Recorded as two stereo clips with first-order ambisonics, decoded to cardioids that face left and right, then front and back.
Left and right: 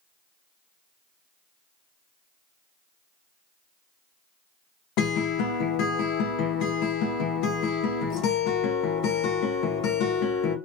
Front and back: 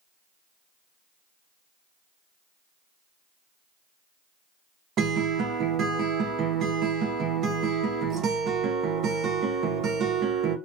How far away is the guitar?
About 0.5 m.